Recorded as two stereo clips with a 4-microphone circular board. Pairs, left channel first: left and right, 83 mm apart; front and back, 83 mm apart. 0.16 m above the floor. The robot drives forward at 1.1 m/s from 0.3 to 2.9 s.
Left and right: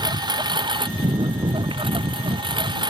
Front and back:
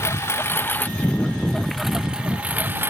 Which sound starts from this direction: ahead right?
A lawn mower, at 0.0 s.